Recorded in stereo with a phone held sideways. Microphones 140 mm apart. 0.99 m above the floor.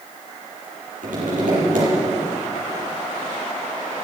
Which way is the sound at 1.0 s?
85° right.